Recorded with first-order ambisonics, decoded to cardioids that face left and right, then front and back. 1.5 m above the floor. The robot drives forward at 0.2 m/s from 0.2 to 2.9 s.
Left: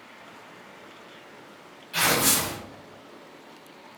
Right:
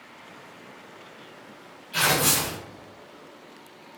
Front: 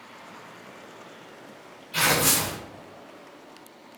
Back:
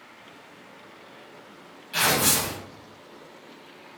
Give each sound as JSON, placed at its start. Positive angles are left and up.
{"t": 1.9, "sound": "tearing paper", "azimuth_deg": 170, "distance_m": 1.6}